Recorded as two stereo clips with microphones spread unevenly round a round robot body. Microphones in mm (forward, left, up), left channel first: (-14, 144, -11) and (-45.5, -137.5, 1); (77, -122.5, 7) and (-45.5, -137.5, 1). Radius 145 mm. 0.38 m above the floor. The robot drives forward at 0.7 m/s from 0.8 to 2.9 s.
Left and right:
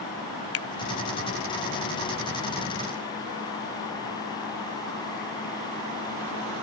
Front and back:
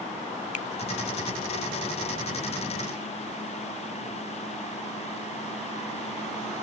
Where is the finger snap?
45° left.